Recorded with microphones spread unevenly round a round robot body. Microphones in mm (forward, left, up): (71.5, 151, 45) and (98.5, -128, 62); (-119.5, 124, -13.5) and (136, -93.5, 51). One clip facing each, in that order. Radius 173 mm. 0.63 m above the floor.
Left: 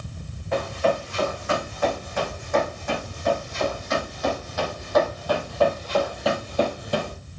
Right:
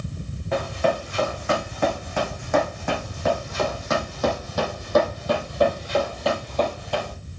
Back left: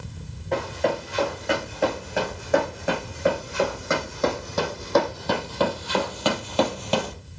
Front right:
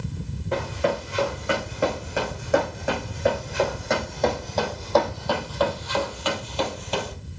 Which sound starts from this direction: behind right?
Running footsteps, at 0.5 s.